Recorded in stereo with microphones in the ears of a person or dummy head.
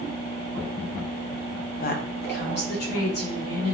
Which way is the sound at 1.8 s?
45° left (ahead or behind).